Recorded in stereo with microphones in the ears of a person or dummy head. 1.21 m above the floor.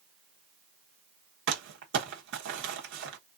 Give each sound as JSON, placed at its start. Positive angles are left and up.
{"t": 1.5, "sound": "crumpling", "side_deg": -75, "distance_m": 0.9}